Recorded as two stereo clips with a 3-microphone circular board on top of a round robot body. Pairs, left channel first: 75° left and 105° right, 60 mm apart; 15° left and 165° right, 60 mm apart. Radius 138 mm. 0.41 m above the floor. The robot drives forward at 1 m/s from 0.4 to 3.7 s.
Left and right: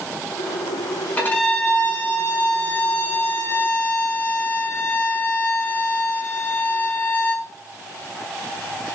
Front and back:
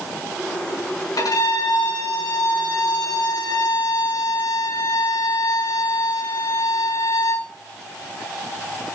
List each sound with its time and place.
1.2 s a violin: 10° left, 7 m; by 7.5 s 20° left, 4.5 m